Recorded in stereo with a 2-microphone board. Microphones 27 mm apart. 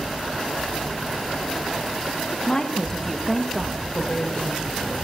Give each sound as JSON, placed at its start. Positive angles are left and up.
{"t": 2.5, "sound": "a woman speaking", "side_deg": 35, "distance_m": 1.2}
{"t": 3.9, "sound": "a woman speaking", "side_deg": 50, "distance_m": 4.5}